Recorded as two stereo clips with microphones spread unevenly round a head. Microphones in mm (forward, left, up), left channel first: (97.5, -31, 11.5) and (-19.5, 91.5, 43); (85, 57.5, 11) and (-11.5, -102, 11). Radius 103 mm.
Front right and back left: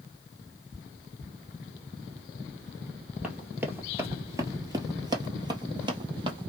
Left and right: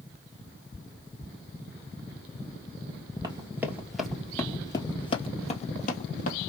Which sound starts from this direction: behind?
Running footsteps, at 3.2 s.